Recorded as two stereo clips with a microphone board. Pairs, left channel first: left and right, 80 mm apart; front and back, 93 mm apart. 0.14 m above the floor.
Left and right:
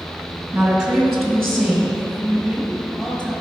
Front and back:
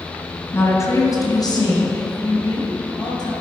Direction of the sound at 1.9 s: 5° left.